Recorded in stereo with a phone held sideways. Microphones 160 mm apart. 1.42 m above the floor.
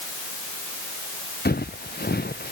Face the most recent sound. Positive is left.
turn(degrees=85)